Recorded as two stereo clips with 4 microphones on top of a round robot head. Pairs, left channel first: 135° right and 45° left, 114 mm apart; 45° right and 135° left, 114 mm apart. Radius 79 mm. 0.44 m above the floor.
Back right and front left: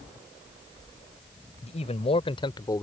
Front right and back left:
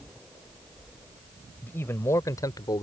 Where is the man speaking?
115° right; by 2.8 s 85° right.